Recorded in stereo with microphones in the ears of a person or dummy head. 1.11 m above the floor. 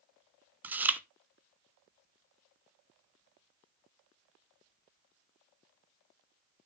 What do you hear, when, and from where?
0.6 s chewing: 5° right (ahead or behind), 0.6 m